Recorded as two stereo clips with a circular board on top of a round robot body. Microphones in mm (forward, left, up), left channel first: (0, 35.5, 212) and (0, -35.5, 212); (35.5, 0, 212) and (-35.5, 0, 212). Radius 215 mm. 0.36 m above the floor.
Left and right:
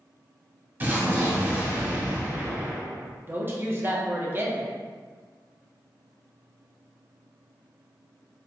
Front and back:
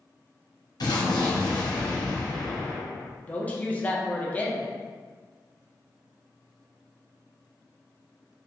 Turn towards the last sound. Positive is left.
turn(degrees=-55)